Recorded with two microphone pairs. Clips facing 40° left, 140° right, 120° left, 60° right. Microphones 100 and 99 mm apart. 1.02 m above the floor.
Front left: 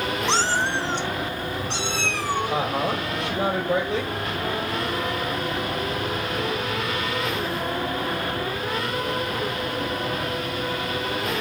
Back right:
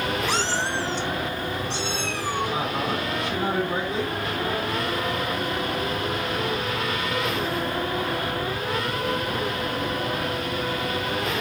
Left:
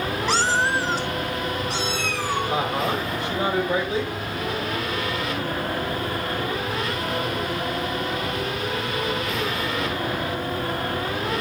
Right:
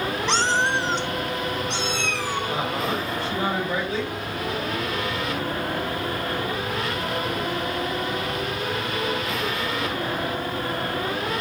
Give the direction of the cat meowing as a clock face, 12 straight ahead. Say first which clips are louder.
Front left 2 dB, left 1 dB; 11 o'clock.